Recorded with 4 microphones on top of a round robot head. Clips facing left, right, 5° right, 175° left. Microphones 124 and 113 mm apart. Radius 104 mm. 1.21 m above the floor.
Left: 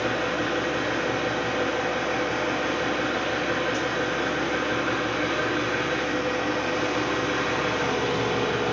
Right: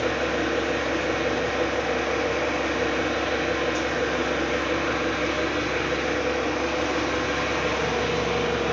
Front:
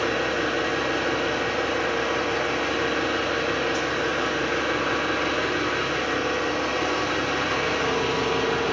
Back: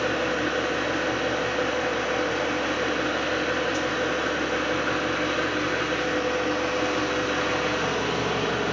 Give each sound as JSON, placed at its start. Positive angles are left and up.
{"t": 0.0, "sound": "an engine running", "azimuth_deg": 90, "distance_m": 1.7}